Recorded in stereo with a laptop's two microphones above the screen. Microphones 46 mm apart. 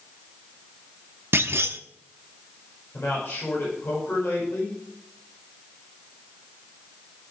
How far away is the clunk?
About 0.8 m.